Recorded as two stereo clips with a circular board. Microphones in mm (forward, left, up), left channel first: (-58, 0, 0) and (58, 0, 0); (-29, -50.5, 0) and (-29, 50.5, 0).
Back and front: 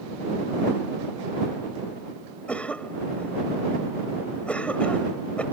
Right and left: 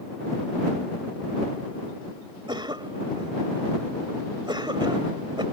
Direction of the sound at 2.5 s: 105° left.